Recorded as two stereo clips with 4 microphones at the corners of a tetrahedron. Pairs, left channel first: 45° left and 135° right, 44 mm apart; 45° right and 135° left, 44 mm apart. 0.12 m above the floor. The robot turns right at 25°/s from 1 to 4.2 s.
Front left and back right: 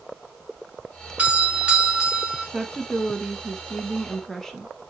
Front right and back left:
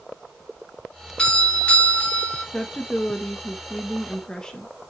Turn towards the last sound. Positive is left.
turn(degrees=-20)